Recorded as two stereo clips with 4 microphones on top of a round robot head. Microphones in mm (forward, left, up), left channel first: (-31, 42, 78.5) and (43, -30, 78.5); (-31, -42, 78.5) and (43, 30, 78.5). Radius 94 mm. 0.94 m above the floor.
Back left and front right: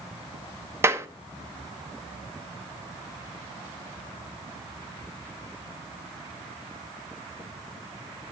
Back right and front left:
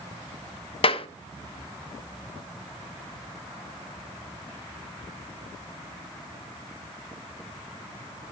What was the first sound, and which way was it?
A clap, 110° right.